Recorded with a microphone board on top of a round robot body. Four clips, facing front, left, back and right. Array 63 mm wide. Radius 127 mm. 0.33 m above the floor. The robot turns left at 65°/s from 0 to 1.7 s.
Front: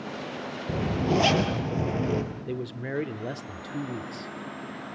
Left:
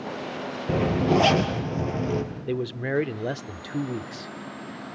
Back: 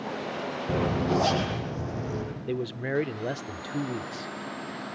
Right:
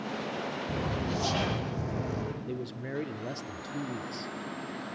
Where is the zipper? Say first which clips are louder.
Left 14 dB, even; 95° left, 6 m; by 2.2 s 25° left, 6 m.